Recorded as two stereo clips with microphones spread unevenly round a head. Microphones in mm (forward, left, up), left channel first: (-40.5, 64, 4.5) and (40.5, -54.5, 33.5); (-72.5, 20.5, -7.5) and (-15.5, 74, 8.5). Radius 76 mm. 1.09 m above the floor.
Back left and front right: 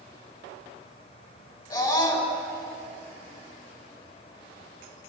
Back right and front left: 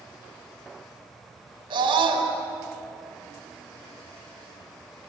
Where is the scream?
60° left, 5.5 m.